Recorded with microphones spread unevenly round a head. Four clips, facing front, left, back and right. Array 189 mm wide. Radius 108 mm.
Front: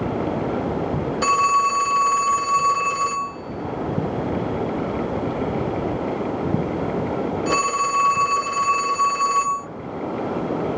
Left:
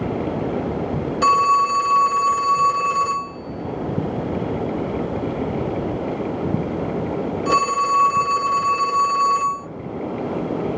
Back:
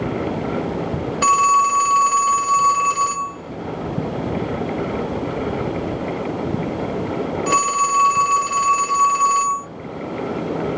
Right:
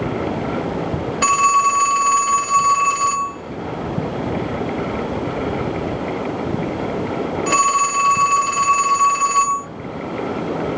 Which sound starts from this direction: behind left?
A phone ringing, at 1.2 s.